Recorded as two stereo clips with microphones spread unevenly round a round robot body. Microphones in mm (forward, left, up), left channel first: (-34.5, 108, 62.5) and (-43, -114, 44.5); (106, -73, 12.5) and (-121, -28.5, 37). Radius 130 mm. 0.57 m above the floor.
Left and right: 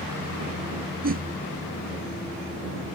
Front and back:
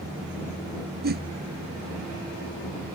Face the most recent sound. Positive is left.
turn(degrees=-140)